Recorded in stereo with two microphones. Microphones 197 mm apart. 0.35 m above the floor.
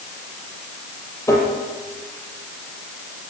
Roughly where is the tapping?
Centre.